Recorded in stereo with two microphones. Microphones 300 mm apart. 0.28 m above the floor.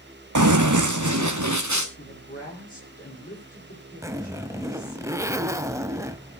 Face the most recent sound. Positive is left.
turn(degrees=-10)  # may be behind; listen again after turning